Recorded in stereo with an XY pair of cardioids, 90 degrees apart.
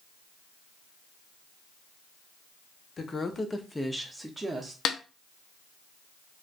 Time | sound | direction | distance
3.0 | a woman speaking | 50° left | 0.8 m
4.8 | a snare drum | 70° left | 0.6 m